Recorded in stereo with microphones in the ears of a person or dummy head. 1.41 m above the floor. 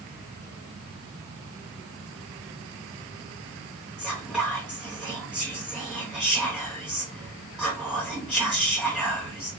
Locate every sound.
4.0 s whispering: centre (ahead or behind), 0.9 m